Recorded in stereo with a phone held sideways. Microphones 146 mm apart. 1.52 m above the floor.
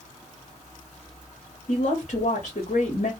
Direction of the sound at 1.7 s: 60° left (ahead or behind).